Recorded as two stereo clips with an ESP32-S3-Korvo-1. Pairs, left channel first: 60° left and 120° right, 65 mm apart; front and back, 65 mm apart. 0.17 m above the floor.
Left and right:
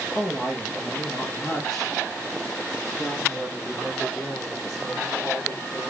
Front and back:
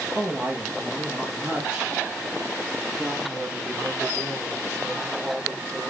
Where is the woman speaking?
105° left, 3.5 m.